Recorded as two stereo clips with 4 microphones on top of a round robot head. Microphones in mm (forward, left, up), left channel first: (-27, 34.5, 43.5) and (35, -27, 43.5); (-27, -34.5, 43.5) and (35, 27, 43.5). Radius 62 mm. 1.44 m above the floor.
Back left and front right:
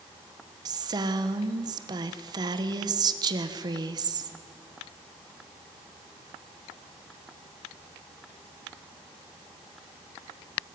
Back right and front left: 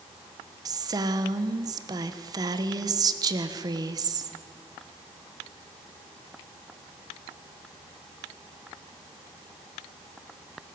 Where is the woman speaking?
Straight ahead, 1.3 m.